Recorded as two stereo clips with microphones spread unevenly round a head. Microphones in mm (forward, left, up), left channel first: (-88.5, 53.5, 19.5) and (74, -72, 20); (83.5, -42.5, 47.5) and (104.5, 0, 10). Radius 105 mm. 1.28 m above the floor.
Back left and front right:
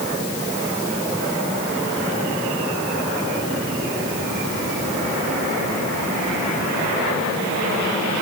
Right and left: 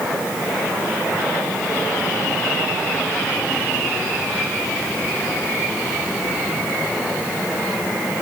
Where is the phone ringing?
I don't hear a phone ringing.